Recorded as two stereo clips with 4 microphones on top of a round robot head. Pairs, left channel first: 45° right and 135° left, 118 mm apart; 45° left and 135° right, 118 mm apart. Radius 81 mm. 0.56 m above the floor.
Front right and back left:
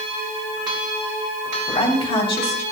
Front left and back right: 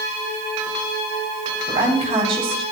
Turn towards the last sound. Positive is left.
turn(degrees=-85)